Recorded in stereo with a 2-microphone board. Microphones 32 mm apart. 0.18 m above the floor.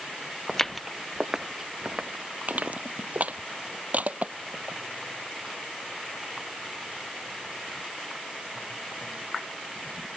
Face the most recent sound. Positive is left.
turn(degrees=-55)  # may be behind; listen again after turning